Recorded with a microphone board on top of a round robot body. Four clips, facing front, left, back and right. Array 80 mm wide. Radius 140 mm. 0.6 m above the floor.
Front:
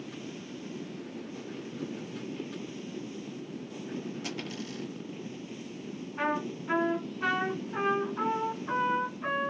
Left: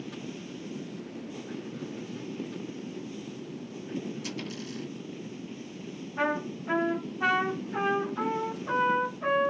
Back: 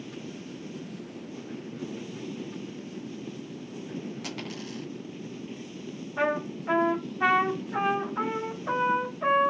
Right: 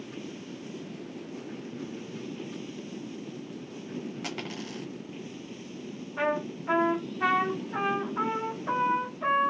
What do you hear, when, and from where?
4.2 s a dropped coin: 105° right, 1.2 m
6.2 s a trumpet: 170° right, 3 m